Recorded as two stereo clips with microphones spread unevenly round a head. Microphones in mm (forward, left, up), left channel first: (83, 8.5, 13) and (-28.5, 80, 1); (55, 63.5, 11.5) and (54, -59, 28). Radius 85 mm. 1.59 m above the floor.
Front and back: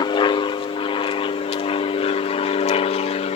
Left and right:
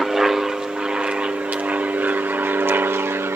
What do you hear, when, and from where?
0.0 s an aircraft: straight ahead; by 3.4 s 25° right